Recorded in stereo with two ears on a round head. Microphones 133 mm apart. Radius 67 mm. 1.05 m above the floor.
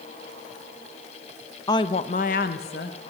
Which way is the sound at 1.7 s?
25° left (ahead or behind).